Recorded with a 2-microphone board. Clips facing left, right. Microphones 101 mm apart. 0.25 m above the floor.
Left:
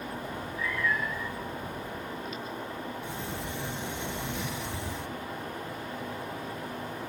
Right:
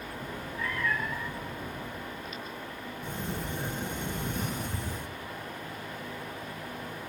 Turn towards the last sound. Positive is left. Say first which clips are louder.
# even
turn(degrees=-45)  # may be behind; listen again after turning